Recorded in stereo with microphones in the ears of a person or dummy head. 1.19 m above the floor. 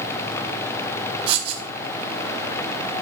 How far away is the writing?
About 2.5 m.